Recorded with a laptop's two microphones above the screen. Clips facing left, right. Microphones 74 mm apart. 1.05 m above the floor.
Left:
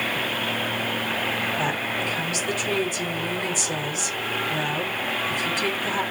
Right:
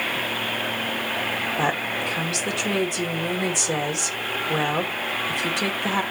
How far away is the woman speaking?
About 2.5 m.